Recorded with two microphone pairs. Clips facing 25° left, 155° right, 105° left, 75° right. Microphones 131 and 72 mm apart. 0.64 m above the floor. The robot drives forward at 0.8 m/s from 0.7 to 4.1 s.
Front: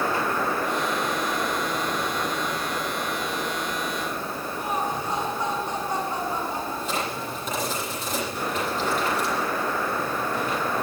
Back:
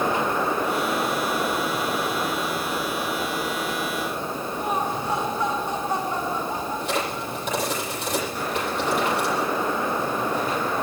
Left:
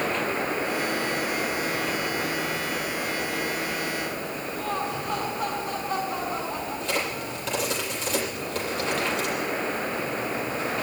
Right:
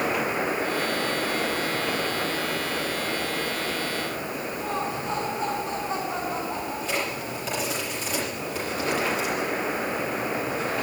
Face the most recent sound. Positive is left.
turn(degrees=-160)